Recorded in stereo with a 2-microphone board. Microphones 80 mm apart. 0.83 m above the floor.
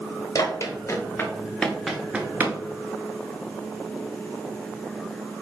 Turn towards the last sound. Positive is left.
turn(degrees=-30)  # may be behind; listen again after turning